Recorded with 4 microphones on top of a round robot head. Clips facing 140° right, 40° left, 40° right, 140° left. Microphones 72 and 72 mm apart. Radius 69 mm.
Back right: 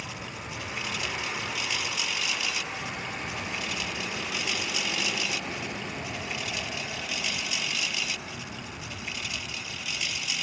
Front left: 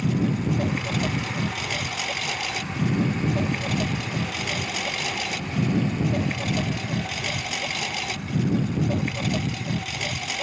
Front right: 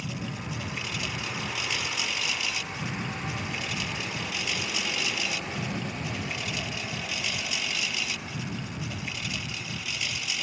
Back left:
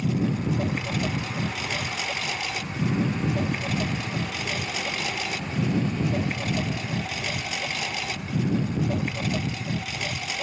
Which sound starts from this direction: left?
A lawn mower, at 0.0 s.